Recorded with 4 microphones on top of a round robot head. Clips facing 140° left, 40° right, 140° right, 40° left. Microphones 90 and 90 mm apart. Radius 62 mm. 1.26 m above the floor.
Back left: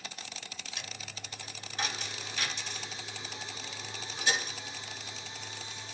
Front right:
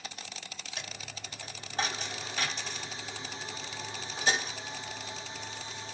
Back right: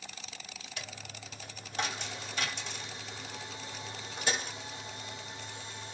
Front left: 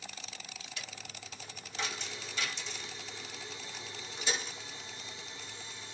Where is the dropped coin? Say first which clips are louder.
Front right 3 dB, back right 4 dB; 100° right, 1.2 m.